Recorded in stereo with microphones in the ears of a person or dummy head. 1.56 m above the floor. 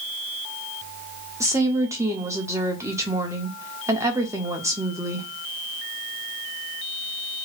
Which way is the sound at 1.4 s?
15° right (ahead or behind).